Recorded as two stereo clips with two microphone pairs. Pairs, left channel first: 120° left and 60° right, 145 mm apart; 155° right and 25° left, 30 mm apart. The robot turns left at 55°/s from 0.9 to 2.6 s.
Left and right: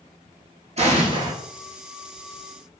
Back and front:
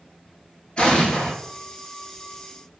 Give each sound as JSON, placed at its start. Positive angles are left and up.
{"t": 0.8, "sound": "an explosion", "azimuth_deg": -100, "distance_m": 0.7}